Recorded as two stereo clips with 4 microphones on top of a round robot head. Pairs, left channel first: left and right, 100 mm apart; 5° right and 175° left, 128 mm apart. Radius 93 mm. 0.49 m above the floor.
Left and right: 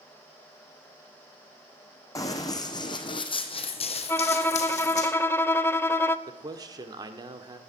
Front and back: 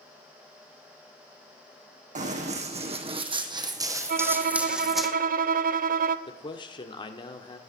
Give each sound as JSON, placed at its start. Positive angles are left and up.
{"t": 2.1, "sound": "running footsteps", "azimuth_deg": 145, "distance_m": 2.0}
{"t": 4.1, "sound": "a violin", "azimuth_deg": 160, "distance_m": 0.5}
{"t": 6.3, "sound": "a man speaking", "azimuth_deg": -50, "distance_m": 1.2}